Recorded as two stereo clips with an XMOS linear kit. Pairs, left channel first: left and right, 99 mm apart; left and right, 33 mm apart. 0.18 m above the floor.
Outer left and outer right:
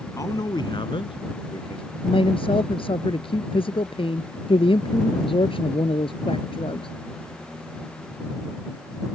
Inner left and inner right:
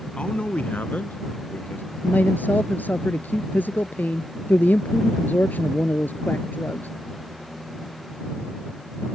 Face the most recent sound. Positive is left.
turn(degrees=60)  # may be behind; listen again after turning